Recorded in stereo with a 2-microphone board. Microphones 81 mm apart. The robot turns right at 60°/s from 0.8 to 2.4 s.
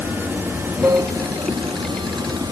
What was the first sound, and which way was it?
Running water, 155° right.